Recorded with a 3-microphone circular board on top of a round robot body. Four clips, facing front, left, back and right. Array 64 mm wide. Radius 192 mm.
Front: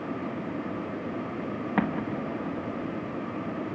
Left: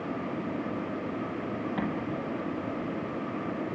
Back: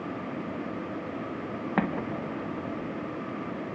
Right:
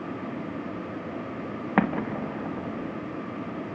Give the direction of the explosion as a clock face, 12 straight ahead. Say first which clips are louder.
Right 6 dB, front 1 dB; 3 o'clock.